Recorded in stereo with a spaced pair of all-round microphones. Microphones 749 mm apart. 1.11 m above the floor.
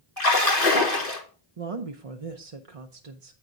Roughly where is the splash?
Left.